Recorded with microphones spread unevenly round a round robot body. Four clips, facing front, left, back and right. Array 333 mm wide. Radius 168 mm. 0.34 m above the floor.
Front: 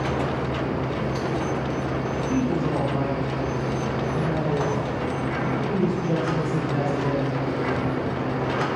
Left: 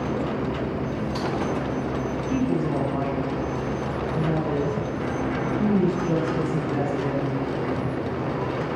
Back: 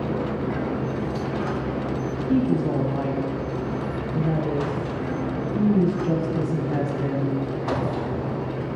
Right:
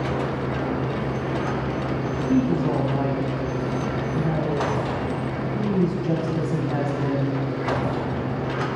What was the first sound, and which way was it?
A woman speaking, 145° right.